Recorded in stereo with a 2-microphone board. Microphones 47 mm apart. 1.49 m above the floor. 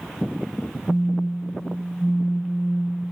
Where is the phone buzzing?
40° left (ahead or behind), 1.5 m.